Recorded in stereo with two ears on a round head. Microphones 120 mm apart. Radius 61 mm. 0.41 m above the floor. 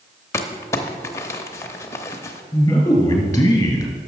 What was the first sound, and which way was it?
Crumpling, 20° left (ahead or behind).